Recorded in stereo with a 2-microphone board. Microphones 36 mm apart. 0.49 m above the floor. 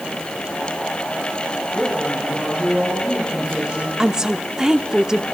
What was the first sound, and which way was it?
A woman speaking, 45° right (ahead or behind).